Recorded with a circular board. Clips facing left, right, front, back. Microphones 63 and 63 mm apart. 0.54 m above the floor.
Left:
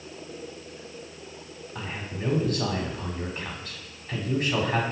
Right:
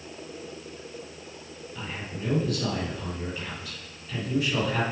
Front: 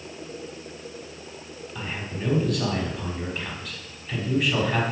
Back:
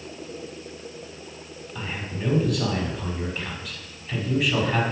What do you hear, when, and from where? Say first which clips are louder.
1.8 s a man speaking: left 2 dB, back 1 dB; 90° left, 1.4 m